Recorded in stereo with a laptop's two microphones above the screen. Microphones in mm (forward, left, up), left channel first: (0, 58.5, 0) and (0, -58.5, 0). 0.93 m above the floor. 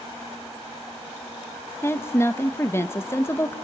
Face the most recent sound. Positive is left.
turn(degrees=20)  # may be behind; listen again after turning